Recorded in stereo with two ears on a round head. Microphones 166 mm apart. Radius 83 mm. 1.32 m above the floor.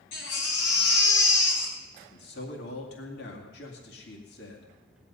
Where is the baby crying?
70° left (ahead or behind), 3.5 m.